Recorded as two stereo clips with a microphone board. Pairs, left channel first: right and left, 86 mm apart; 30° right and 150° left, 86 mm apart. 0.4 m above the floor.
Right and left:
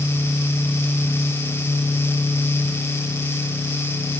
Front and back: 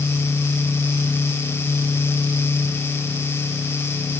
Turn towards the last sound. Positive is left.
No sound to turn to.